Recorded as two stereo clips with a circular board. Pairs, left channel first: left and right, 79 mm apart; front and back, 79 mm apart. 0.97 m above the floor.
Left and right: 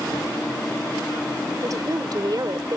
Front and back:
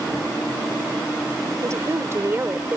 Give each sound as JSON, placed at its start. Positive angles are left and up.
{"t": 1.6, "sound": "a woman speaking", "azimuth_deg": -130}